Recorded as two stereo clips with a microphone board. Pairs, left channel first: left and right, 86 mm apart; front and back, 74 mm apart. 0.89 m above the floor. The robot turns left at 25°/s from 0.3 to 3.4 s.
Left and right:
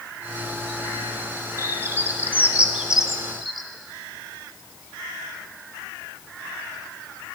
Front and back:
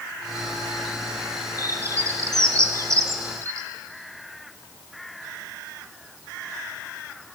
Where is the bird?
135° right, 1.0 m; by 3.7 s straight behind, 1.0 m.